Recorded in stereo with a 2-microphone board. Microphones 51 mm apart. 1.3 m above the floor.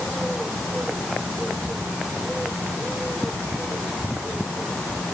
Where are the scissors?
No scissors in this recording.